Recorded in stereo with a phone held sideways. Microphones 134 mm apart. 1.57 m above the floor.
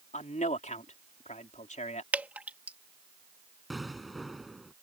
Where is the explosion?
Centre (ahead or behind).